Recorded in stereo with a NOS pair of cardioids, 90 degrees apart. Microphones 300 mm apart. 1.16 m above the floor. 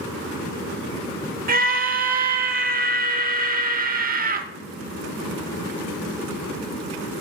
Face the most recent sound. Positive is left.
turn(degrees=-30)